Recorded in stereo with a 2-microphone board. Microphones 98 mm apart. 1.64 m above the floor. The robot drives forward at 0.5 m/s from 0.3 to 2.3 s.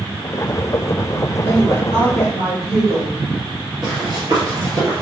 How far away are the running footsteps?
About 2.5 m.